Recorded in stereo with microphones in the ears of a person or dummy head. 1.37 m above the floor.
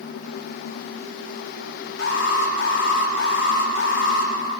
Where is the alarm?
75° left (ahead or behind), 4 m.